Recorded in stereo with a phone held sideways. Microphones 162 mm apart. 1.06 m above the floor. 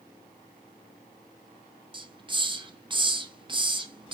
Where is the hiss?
30° right (ahead or behind), 0.6 m.